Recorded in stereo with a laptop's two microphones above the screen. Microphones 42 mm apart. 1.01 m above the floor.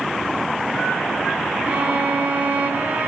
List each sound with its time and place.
1.7 s a violin: 45° right (ahead or behind), 3.5 m